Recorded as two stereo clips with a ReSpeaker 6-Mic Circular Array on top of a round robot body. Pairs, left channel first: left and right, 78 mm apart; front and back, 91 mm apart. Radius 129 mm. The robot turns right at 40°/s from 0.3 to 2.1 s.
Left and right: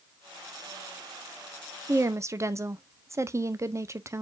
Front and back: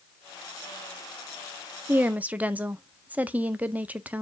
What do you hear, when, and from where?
1.9 s a woman speaking: 125° right, 0.6 m; by 4.2 s 115° right, 0.6 m